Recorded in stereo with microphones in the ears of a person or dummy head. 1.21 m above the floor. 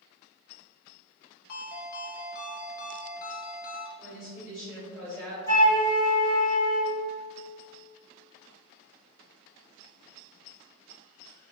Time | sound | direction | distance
1.5 | a ringtone | 50° left (ahead or behind) | 0.6 m
4.0 | a woman speaking | 5° left (ahead or behind) | 1.2 m
5.5 | a flute | 15° left (ahead or behind) | 1.4 m